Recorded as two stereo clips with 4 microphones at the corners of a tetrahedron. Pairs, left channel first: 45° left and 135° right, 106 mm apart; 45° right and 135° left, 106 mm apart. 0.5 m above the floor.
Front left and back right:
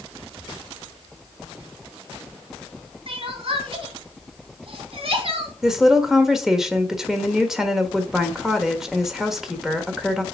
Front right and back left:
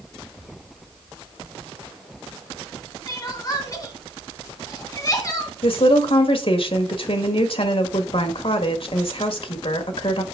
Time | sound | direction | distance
3.1 | crying | 100° right | 2 m
5.6 | a woman speaking | 50° right | 1.4 m